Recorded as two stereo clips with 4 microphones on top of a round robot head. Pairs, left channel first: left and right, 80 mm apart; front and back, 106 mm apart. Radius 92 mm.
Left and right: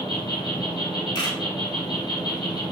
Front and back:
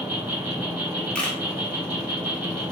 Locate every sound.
0.0 s an insect: 105° left, 1.6 m
1.1 s a camera shutter: 80° left, 1.3 m